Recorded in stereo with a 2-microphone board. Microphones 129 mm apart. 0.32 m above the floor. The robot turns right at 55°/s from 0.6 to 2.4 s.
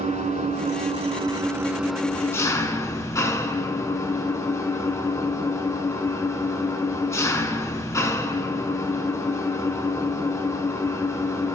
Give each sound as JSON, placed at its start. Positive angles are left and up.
{"t": 0.0, "sound": "an engine running", "azimuth_deg": -75, "distance_m": 1.0}